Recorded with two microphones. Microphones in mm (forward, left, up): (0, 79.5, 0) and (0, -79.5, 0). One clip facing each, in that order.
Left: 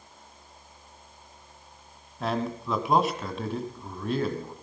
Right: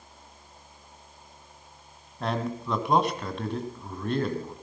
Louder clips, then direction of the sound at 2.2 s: Left 1 dB; centre (ahead or behind).